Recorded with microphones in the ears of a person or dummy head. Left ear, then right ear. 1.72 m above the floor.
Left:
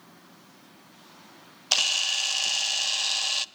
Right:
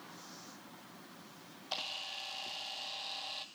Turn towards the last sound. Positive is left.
turn(degrees=60)  # may be behind; listen again after turning